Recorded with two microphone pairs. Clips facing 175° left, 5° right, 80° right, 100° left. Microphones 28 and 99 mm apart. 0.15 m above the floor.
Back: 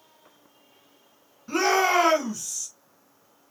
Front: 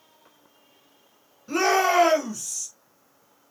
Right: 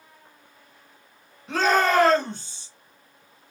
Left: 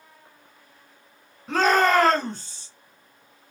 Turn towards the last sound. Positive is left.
turn(degrees=95)